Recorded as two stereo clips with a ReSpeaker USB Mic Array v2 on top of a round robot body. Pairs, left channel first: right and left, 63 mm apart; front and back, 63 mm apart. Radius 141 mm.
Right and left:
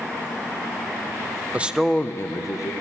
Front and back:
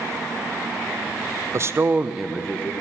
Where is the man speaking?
150° left, 0.7 m; by 2.7 s 70° right, 0.9 m.